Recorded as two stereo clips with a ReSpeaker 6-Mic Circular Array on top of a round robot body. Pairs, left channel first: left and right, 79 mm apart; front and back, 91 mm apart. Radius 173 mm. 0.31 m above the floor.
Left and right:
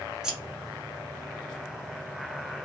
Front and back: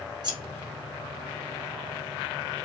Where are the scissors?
170° right, 1.0 m.